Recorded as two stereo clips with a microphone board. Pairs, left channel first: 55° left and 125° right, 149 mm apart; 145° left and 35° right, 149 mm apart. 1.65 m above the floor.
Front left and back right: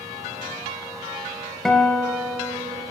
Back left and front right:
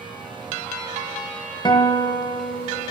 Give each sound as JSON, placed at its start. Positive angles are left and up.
{"t": 1.6, "sound": "a guitar", "azimuth_deg": 140, "distance_m": 1.6}